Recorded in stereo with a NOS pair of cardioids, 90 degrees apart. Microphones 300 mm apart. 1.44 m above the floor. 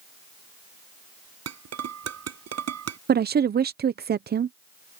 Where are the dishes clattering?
55° right.